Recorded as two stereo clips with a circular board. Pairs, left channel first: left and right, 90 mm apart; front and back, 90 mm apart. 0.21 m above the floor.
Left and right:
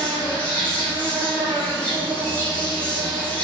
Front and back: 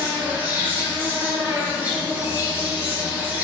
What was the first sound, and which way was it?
An insect, 140° left.